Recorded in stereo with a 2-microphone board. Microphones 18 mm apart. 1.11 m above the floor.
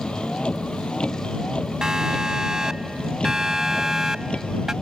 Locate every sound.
0.0 s a vehicle: 85° left
1.8 s a siren: 30° right (ahead or behind); by 4.7 s 25° right (ahead or behind)